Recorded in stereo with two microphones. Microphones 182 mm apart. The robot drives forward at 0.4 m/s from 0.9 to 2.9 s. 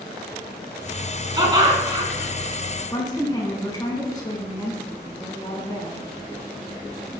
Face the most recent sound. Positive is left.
turn(degrees=25)  # may be behind; listen again after turning